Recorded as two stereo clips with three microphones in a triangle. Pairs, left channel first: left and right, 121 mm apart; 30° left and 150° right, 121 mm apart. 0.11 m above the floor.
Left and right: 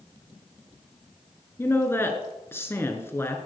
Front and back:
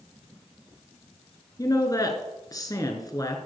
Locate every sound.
1.6 s a woman speaking: 40° left, 1.4 m